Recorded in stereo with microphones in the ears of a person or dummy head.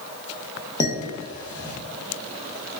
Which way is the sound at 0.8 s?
20° left (ahead or behind).